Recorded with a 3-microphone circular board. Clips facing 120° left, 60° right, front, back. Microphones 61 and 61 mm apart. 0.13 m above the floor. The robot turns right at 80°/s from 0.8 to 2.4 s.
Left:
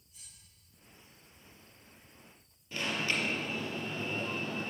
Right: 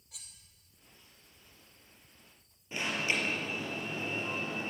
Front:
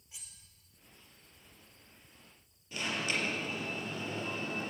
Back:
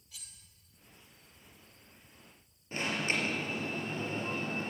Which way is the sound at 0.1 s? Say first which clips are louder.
Right 5 dB, back 1 dB; 70° right.